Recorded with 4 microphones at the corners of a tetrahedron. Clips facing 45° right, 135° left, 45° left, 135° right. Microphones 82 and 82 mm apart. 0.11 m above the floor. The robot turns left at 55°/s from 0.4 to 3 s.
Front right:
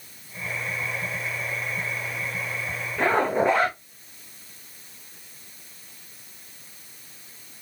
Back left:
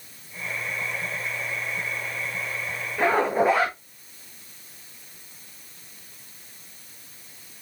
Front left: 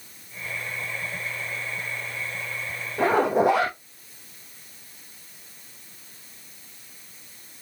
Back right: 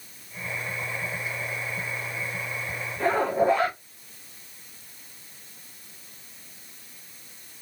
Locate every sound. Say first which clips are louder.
3.0 s a zipper: back left 1 dB, front left 3 dB; 50° left, 4 m